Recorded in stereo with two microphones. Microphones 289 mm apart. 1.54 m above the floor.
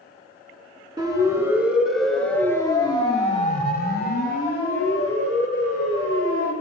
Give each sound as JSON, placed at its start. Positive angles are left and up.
{"t": 1.0, "sound": "a siren", "side_deg": -15, "distance_m": 4.0}